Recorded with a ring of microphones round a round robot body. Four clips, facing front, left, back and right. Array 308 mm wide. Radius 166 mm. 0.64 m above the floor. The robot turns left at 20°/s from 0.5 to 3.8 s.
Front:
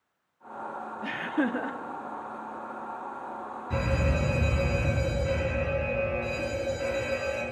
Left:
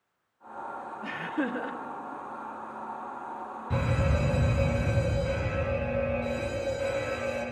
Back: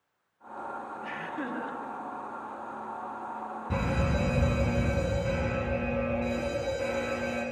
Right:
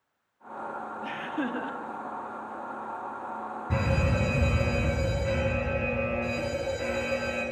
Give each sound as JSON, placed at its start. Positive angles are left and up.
{"t": 1.0, "sound": "laughter", "azimuth_deg": -5, "distance_m": 1.5}
{"t": 3.7, "sound": "a fire alarm", "azimuth_deg": -135, "distance_m": 8.0}